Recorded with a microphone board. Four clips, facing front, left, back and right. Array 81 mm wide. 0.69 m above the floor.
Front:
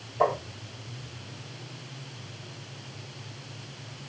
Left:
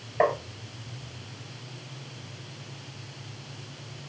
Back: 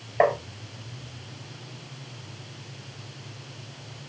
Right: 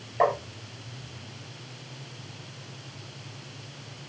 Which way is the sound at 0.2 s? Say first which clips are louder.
Even, back 4 dB; 170° left.